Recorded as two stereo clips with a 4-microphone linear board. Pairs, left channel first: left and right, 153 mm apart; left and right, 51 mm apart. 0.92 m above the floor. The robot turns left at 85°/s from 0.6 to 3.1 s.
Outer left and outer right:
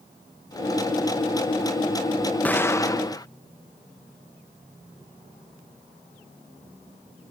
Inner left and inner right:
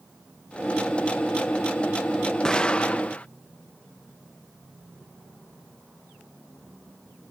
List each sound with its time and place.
2.5 s an explosion: 10° left (ahead or behind); by 3.3 s 25° left (ahead or behind)